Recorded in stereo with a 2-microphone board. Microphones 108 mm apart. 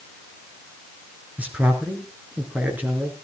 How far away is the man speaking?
About 4 m.